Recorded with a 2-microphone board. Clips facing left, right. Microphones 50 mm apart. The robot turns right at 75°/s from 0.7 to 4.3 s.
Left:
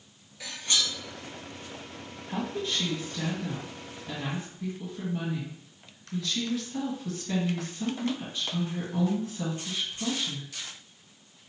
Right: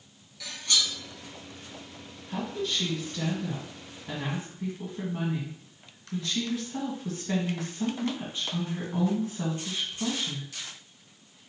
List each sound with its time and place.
0.4 s cutlery clinking: 30° left (ahead or behind), 1.9 m; by 0.9 s 45° left (ahead or behind), 1.9 m
2.3 s a woman speaking: 25° left (ahead or behind), 1.4 m; by 10.5 s 25° right (ahead or behind), 1.4 m